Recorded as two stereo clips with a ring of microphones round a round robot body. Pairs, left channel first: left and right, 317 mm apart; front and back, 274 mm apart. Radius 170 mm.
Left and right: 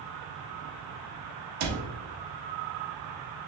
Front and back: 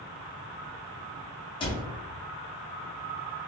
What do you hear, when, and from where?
1.6 s a cupboard door: 75° right, 0.8 m